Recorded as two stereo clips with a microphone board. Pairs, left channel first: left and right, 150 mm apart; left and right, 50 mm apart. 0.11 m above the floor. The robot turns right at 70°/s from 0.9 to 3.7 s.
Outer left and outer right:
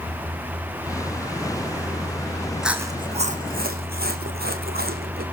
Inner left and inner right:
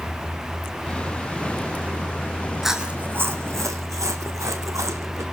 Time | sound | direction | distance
2.6 | chewing | 5° right (ahead or behind) | 1.3 m